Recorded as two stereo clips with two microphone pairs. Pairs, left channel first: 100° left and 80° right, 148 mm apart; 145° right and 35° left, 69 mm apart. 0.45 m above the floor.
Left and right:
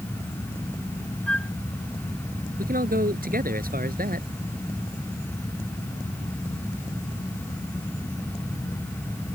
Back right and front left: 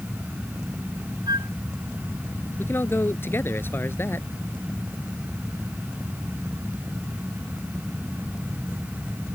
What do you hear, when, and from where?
1.3 s a flute: 20° left
2.6 s a man speaking: 90° right